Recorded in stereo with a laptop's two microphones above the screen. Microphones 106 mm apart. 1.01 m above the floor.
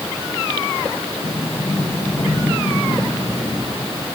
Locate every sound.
1.2 s a sliding door: 85° left, 9 m